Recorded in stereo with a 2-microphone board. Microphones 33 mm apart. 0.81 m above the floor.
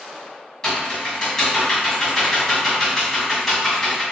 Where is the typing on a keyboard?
20° left (ahead or behind), 1.5 m.